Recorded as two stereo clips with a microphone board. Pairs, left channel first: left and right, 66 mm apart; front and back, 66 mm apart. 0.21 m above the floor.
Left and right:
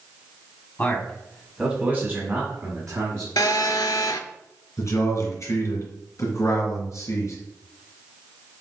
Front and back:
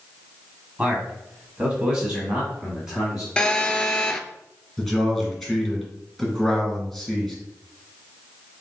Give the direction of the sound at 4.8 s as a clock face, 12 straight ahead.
9 o'clock.